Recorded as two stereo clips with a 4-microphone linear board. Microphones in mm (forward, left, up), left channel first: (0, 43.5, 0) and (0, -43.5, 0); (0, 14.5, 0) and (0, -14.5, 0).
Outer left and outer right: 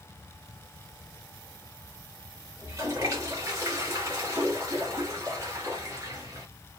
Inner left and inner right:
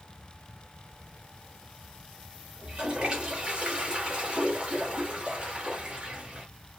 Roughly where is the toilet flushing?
Right.